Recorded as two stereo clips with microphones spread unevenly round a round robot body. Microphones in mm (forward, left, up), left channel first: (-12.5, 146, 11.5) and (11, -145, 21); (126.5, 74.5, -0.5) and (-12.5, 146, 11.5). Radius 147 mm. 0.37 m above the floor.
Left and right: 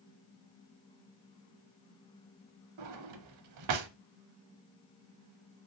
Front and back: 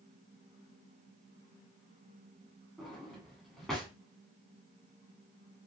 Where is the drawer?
115° right, 0.5 m.